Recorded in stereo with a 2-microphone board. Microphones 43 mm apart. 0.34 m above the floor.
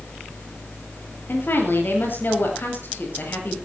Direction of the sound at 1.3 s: 60° left (ahead or behind).